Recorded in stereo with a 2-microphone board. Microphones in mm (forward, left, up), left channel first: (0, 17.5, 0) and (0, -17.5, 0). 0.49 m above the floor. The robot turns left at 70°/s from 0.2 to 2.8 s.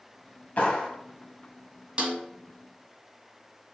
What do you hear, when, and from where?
0.6 s a clap: 50° left (ahead or behind), 2 m; by 0.9 s 25° left (ahead or behind), 2 m
2.0 s a snare drum: 35° right (ahead or behind), 1.9 m; by 2.2 s 50° right (ahead or behind), 1.9 m